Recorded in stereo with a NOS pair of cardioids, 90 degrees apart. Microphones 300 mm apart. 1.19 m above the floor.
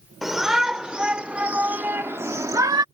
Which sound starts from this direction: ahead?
A shout, at 0.2 s.